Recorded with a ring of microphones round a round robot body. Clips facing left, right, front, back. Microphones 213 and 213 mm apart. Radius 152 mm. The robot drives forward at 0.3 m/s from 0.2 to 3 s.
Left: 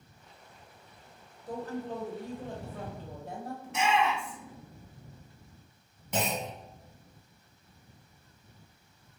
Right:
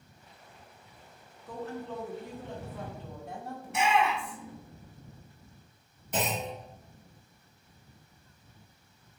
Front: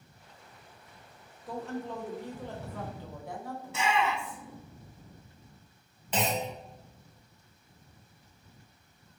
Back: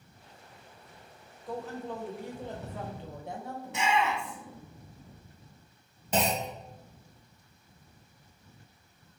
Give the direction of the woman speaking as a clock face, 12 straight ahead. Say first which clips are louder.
Left 2 dB, even; 9 o'clock.